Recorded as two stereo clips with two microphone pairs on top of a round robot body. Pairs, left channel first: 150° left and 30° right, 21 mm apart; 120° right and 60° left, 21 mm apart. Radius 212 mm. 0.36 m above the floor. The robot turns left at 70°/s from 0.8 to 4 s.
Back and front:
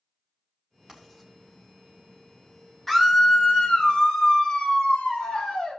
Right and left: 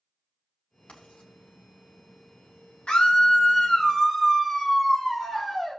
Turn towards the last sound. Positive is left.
turn(degrees=155)